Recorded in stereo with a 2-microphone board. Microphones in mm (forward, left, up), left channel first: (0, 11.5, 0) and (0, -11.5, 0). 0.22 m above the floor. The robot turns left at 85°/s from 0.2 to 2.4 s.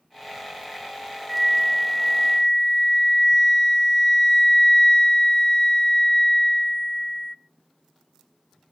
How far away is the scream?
I don't hear a scream.